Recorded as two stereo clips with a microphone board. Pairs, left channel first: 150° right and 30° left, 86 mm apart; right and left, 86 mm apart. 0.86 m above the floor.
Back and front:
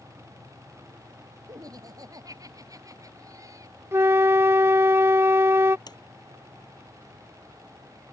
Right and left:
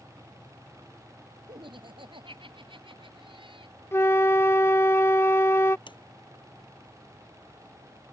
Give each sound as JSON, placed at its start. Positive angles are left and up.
{"t": 1.5, "sound": "laughter", "azimuth_deg": 75}
{"t": 3.9, "sound": "a flute", "azimuth_deg": -30}
{"t": 5.9, "sound": "a sliding door", "azimuth_deg": -115}